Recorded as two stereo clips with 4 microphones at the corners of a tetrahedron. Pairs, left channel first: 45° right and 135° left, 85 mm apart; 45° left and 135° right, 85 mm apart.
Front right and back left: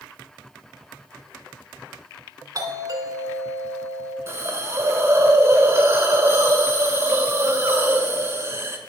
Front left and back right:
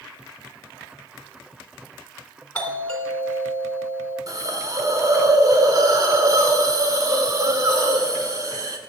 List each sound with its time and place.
2.5 s a doorbell: 115° left, 2.5 m
4.3 s a hiss: 175° right, 1.4 m